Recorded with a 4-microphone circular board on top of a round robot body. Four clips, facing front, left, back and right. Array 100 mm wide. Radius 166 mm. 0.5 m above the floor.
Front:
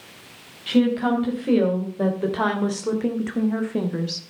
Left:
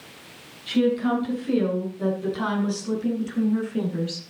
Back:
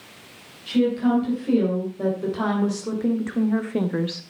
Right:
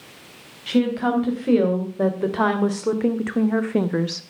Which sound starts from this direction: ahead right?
A woman speaking, at 0.7 s.